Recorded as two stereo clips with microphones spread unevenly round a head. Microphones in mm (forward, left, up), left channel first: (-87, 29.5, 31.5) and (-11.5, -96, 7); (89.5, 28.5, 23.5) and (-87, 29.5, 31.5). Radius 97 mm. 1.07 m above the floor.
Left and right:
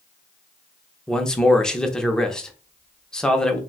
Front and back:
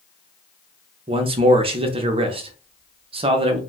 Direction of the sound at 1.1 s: 140° right.